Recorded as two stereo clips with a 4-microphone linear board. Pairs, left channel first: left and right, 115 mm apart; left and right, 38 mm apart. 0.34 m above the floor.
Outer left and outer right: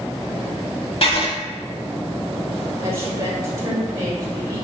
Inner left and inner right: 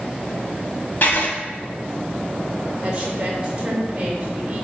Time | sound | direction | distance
1.0 | writing | 55° left (ahead or behind) | 0.9 m
2.8 | a woman speaking | 30° right (ahead or behind) | 0.9 m